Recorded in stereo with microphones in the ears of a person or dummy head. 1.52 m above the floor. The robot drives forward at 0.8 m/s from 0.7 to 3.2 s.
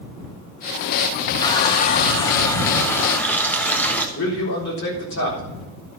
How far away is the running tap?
About 0.6 m.